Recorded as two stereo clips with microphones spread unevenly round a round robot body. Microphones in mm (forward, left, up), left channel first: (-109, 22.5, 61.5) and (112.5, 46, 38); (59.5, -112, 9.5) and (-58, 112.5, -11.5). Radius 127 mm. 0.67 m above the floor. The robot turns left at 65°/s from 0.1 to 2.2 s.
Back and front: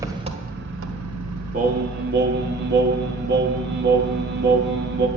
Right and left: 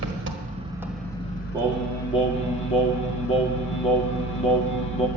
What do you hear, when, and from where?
0.0 s an engine running: 80° left, 1.4 m; by 5.2 s 55° right, 1.4 m
1.5 s singing: 45° left, 1.4 m; by 5.1 s 5° left, 1.4 m